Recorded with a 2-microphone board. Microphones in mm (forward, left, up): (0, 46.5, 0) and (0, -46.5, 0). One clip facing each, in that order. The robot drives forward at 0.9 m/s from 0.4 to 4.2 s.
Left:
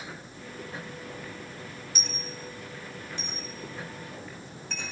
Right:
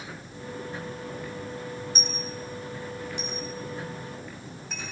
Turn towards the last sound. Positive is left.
turn(degrees=-10)  # may be behind; listen again after turning